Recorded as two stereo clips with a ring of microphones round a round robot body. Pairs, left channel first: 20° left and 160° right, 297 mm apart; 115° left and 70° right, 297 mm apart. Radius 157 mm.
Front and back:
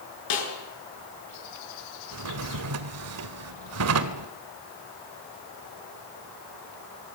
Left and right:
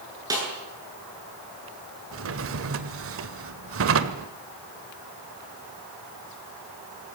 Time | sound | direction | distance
0.3 | a snare drum | 10° left | 8.5 m
2.1 | a drawer | 115° right | 1.7 m